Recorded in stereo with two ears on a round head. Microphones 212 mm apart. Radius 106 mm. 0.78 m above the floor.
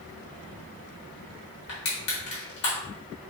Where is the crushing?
50° left (ahead or behind), 1.2 m.